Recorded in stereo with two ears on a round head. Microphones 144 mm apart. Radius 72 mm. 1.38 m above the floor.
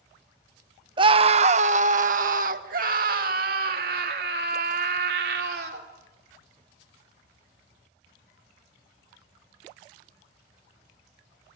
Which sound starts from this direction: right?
A scream, at 1.0 s.